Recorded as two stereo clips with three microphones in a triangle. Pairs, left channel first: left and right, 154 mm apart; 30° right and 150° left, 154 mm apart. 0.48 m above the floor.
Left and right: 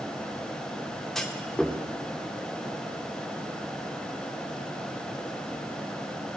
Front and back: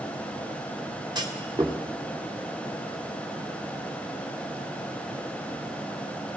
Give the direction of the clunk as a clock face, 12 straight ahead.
6 o'clock.